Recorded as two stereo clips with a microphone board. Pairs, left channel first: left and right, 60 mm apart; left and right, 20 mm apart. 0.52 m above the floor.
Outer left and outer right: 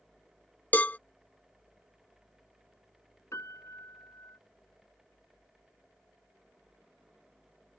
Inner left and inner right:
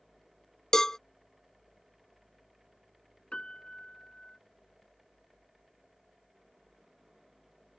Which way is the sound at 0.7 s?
25° left (ahead or behind).